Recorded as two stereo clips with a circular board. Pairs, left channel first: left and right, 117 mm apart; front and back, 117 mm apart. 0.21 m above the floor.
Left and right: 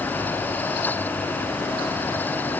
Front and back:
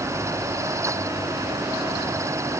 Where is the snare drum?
I don't hear a snare drum.